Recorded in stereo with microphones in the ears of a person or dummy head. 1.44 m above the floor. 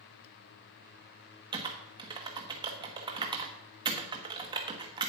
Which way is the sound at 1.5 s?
20° right (ahead or behind).